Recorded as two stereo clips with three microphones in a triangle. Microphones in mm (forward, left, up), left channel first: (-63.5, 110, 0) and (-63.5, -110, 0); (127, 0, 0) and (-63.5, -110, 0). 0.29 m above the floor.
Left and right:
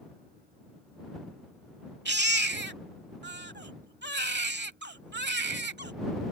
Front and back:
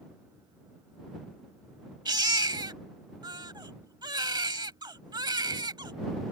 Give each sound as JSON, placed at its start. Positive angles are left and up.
{"t": 2.0, "sound": "a baby crying", "azimuth_deg": -85}